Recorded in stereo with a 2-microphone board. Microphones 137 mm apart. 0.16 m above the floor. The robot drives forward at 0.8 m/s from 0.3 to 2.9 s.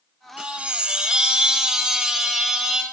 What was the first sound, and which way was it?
A chime, 10° right (ahead or behind).